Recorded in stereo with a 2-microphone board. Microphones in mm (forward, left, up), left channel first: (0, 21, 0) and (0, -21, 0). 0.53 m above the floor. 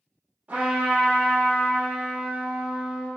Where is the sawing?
I don't hear sawing.